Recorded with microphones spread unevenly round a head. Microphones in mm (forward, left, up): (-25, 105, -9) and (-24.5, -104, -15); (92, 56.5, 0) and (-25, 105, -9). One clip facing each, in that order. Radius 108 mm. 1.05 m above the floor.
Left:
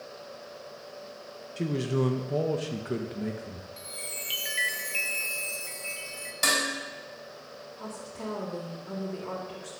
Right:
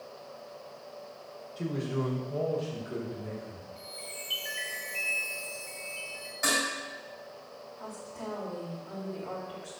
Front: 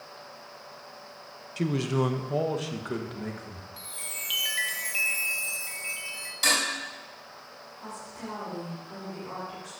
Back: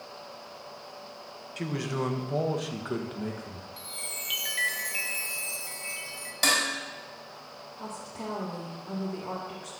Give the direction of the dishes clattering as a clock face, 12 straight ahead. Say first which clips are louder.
Even, back 1 dB; 8 o'clock.